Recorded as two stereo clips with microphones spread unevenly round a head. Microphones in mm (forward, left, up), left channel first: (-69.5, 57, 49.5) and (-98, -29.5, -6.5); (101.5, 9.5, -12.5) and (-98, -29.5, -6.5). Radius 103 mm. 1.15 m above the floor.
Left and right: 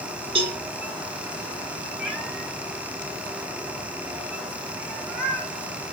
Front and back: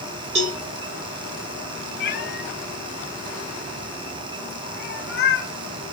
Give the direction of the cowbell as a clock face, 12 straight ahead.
4 o'clock.